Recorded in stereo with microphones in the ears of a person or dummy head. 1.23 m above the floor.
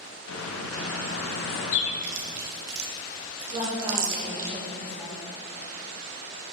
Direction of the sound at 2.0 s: 55° right (ahead or behind).